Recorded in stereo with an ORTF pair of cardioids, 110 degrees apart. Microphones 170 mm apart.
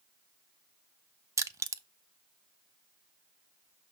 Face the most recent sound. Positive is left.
turn(degrees=-15)